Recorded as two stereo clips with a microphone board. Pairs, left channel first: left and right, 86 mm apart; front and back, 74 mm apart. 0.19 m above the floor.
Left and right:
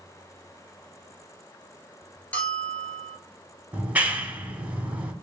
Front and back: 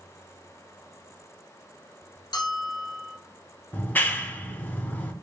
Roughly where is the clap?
Ahead right.